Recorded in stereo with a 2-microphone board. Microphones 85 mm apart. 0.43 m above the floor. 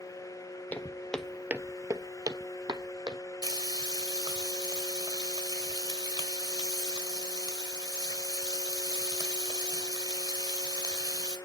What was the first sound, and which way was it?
Footsteps, 20° left (ahead or behind).